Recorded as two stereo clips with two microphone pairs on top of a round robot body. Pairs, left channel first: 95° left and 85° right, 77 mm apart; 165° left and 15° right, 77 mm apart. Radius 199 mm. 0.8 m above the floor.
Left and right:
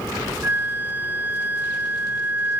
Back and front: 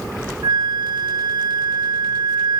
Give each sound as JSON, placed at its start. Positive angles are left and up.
{"t": 0.4, "sound": "a flute", "azimuth_deg": -30, "distance_m": 0.7}